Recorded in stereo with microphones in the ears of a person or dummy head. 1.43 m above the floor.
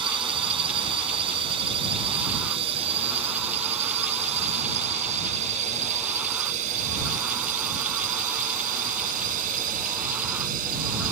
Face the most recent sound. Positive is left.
turn(degrees=-45)  # may be behind; listen again after turning